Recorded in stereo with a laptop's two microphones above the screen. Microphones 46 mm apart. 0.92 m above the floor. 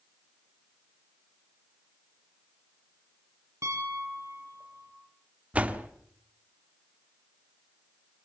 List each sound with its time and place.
3.6 s a piano: 80° right, 4.5 m
5.5 s a door slam: 30° right (ahead or behind), 1.6 m